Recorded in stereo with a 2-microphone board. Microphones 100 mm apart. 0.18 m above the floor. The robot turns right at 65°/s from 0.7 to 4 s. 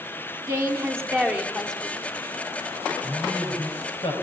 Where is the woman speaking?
55° right, 1.8 m; by 2.0 s 25° left, 1.8 m.